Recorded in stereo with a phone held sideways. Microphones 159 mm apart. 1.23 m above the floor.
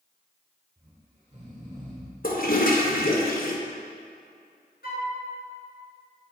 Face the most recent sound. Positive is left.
turn(degrees=75)  # may be behind; listen again after turning